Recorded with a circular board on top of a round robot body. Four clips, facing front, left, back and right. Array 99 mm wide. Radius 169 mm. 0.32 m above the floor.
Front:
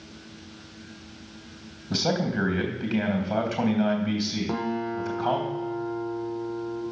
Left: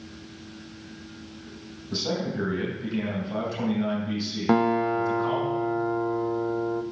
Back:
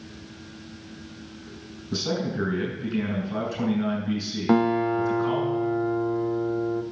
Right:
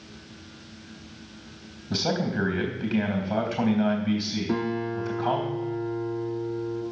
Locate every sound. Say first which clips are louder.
1.9 s a man speaking: right 2 dB, front 2 dB; 35° right, 3.5 m
4.5 s a guitar: left 8 dB, back 12 dB; 115° left, 0.8 m